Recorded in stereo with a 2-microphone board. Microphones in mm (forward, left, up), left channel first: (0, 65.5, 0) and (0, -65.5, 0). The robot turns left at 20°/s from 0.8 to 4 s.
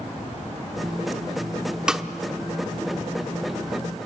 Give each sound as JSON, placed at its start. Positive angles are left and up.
{"t": 1.9, "sound": "a snare drum", "side_deg": -5, "distance_m": 0.8}